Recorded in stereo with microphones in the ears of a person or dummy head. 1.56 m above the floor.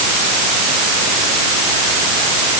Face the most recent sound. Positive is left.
No sound to turn to.